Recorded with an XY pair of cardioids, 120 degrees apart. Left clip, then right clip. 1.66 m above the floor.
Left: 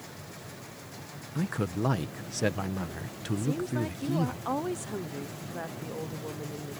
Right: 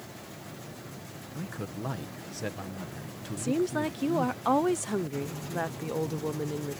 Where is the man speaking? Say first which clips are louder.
Left 7 dB; 35° left.